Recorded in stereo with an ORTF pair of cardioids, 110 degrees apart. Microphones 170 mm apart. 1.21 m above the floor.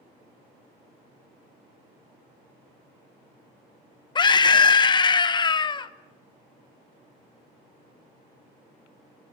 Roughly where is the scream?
Ahead left.